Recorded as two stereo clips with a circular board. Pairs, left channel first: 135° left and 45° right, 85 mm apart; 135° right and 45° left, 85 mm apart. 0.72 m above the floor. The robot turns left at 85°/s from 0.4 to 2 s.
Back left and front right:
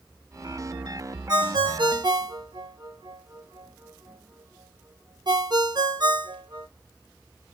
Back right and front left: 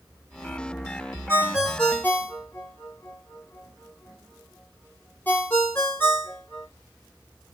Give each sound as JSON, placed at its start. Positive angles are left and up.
{"t": 1.3, "sound": "a ringtone", "azimuth_deg": -10, "distance_m": 0.7}